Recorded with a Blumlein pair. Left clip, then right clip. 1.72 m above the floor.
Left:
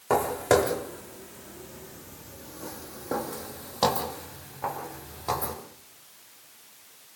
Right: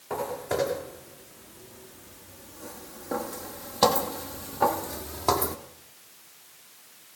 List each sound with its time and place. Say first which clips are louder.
0.1 s footsteps: left 8 dB; 35° left, 5.5 m; by 5.6 s 75° right, 2.5 m